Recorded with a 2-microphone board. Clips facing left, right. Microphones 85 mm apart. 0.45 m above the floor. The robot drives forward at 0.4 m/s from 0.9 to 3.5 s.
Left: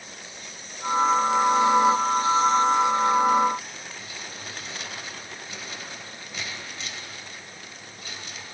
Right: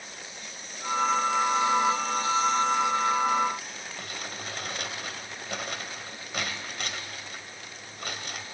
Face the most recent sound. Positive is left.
turn(degrees=-60)  # may be behind; listen again after turning